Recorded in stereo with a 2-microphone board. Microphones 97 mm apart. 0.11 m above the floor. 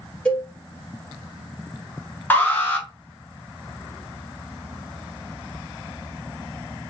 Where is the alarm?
20° left (ahead or behind), 0.8 m.